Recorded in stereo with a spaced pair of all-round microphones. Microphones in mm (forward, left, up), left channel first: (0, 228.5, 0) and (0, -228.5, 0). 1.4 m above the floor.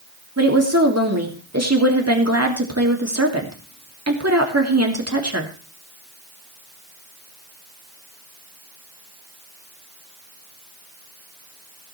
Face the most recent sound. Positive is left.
turn(degrees=-35)  # may be behind; listen again after turning